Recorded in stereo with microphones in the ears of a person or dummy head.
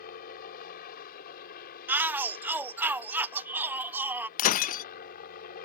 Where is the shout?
15° right (ahead or behind).